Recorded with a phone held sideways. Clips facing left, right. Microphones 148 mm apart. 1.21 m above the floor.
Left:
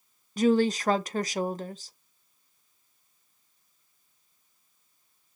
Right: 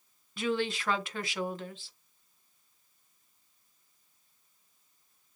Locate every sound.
0.4 s a woman speaking: 40° left (ahead or behind), 0.5 m